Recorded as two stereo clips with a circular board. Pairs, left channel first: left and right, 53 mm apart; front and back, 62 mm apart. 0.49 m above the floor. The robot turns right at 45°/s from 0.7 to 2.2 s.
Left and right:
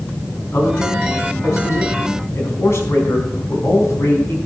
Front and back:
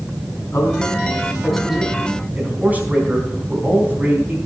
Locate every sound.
0.5 s a man speaking: 50° left, 4.5 m; by 4.4 s 115° left, 4.5 m